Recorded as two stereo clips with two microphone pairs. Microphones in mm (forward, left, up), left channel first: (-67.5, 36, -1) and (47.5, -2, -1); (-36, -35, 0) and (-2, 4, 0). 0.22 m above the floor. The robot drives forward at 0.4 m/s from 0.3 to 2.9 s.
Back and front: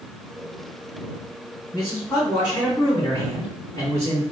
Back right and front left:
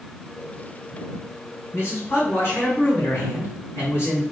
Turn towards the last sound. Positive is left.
turn(degrees=-150)